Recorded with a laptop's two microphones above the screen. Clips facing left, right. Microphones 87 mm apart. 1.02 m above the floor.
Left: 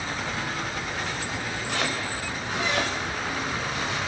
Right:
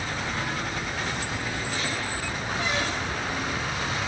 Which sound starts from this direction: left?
Chopping, at 1.7 s.